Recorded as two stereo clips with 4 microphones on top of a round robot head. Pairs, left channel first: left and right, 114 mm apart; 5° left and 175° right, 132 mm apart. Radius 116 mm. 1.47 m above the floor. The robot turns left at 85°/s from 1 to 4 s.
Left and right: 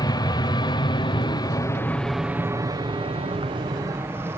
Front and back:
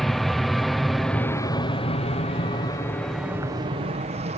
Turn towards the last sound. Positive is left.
turn(degrees=-155)